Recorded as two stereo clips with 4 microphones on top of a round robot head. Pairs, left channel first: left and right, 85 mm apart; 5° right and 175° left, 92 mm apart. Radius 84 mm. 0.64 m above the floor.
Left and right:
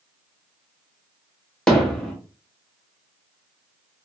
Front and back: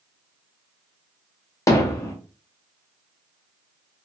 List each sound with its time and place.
1.7 s hammering: 10° left, 0.8 m